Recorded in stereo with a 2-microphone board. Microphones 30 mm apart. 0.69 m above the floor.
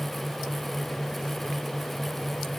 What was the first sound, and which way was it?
Only background noise.